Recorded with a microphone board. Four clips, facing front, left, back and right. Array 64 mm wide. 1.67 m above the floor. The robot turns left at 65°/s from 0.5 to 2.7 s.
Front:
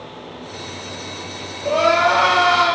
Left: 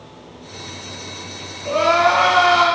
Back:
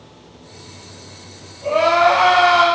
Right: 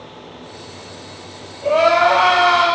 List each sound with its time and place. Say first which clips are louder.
1.6 s crying: right 2 dB, back 2 dB; 70° right, 3.5 m; by 2.7 s 140° right, 3.5 m